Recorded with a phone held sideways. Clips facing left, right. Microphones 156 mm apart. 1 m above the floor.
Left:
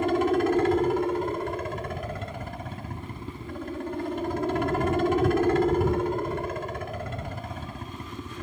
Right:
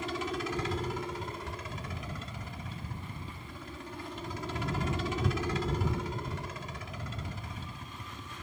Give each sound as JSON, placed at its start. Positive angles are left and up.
{"t": 0.0, "sound": "a helicopter", "side_deg": 60}